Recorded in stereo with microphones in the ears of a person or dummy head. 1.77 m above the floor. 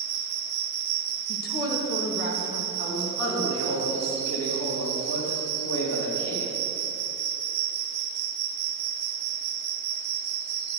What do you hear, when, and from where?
0.0 s an insect: 55° right (ahead or behind), 0.7 m
1.3 s a woman speaking: 60° left (ahead or behind), 2 m
2.8 s a man speaking: 75° left (ahead or behind), 4 m